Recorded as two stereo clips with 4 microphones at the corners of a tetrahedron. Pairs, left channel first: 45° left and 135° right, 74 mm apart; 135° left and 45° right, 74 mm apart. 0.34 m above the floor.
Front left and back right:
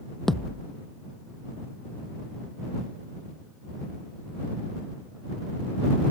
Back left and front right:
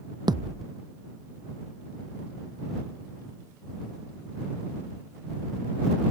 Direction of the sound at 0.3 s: 40° right.